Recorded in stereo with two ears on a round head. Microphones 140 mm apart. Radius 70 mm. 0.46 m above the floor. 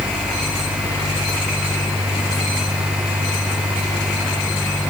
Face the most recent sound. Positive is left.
No sound to turn to.